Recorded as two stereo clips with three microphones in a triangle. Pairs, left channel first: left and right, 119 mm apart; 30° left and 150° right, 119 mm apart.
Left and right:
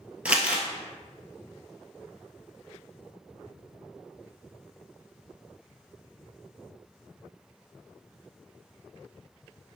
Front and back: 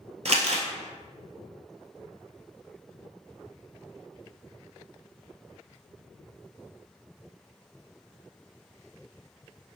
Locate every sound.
0.2 s crumpling: 170° right, 1.1 m